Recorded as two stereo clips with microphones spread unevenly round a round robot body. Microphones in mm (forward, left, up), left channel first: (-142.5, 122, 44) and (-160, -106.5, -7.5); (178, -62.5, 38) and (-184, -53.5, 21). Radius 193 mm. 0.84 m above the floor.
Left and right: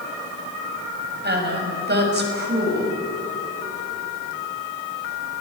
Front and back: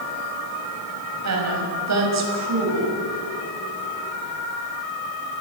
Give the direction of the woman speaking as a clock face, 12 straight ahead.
5 o'clock.